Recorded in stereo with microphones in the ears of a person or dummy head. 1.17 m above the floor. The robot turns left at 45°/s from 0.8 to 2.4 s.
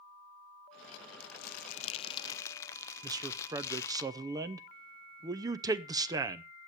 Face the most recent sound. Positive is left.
turn(degrees=-20)  # may be behind; listen again after turning